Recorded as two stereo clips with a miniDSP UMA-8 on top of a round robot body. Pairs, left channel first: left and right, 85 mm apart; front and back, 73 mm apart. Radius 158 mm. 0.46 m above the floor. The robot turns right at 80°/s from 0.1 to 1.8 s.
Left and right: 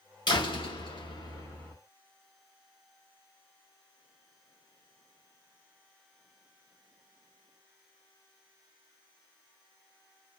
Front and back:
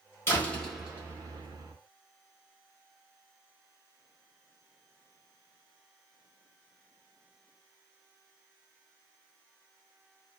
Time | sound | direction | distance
0.3 | a door slam | 55° left | 1.9 m